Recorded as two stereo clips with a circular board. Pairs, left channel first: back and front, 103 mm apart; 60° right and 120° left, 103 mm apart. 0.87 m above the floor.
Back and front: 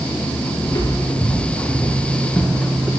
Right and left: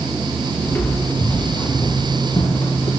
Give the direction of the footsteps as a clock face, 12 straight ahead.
4 o'clock.